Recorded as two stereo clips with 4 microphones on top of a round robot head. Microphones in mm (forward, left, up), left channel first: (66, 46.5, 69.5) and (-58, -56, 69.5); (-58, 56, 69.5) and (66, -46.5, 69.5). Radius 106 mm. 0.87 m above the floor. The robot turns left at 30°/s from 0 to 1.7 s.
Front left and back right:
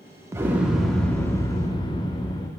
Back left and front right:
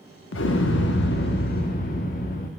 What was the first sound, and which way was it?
An explosion, 145° left.